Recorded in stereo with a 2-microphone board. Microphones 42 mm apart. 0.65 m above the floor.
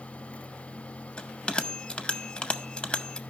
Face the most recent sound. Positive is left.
turn(degrees=20)  # may be behind; listen again after turning